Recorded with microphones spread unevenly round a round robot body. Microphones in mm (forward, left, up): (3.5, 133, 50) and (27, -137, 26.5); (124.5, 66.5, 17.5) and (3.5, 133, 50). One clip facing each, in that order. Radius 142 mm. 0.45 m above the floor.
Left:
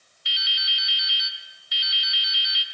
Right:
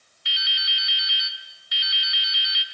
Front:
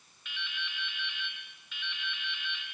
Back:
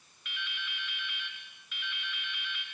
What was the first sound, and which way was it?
Dripping, 115° right.